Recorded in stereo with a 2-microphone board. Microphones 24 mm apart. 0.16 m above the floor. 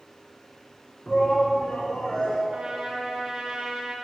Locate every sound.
1.1 s a shout: 30° left (ahead or behind), 1.4 m
2.5 s a trumpet: 30° right (ahead or behind), 2.5 m